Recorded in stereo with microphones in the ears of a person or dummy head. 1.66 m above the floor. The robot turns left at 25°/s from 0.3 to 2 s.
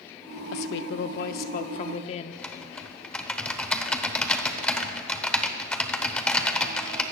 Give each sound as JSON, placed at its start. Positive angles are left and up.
{"t": 0.5, "sound": "a woman speaking", "azimuth_deg": 70, "distance_m": 0.7}
{"t": 2.3, "sound": "typing on a keyboard", "side_deg": 5, "distance_m": 0.9}